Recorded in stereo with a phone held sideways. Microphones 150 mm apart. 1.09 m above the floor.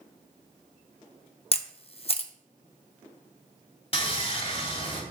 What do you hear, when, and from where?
1.5 s a camera shutter: 40° left (ahead or behind), 0.8 m
3.9 s sawing: 40° left (ahead or behind), 2.5 m